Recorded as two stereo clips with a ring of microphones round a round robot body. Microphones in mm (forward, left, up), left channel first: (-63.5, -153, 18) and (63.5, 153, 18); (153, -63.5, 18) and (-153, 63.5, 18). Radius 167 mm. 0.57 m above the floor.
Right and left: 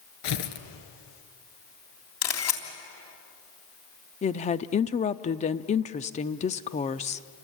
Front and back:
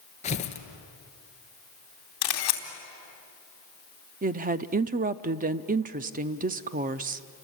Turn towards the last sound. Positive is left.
turn(degrees=-160)